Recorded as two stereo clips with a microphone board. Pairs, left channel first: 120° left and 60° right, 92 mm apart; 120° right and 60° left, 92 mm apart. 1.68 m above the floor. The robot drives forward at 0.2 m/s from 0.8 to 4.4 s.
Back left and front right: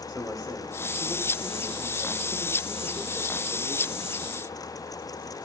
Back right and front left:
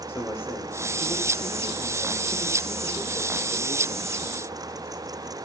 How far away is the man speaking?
About 6.5 m.